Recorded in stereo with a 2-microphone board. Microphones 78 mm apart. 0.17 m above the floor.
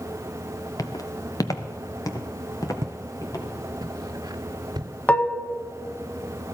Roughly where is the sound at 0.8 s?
Left.